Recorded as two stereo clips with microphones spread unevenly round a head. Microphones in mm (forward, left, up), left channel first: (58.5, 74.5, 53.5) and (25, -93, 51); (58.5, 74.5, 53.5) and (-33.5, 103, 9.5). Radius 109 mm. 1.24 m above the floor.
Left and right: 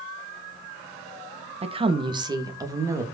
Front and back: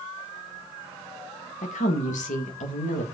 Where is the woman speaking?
45° right, 1.5 m; by 3.0 s 25° right, 2.5 m.